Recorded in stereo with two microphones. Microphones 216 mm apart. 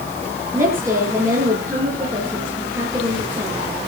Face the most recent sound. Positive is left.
turn(degrees=-15)  # may be behind; listen again after turning